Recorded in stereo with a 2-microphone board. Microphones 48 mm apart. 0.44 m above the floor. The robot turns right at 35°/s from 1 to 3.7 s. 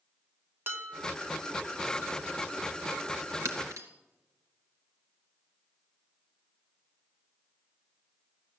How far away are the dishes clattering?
About 1.8 m.